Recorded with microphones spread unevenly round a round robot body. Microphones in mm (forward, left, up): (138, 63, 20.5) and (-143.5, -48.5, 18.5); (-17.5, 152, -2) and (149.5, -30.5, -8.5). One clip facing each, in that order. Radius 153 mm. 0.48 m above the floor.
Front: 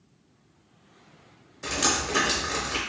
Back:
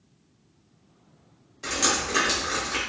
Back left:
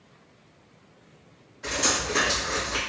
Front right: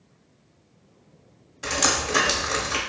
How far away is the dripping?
About 0.8 m.